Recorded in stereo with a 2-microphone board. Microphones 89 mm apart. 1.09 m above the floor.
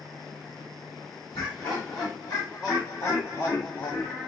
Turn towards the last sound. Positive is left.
turn(degrees=-5)  # may be behind; listen again after turning